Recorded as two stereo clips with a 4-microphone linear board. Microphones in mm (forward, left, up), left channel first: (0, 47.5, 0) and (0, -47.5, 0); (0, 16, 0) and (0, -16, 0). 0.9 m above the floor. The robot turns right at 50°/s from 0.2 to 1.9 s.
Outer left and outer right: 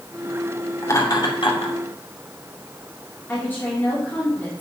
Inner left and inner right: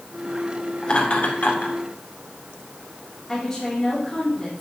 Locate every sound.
0.8 s laughter: 25° left (ahead or behind), 2.5 m; by 1.8 s 70° left (ahead or behind), 2.5 m
3.3 s a woman speaking: 20° left (ahead or behind), 2.5 m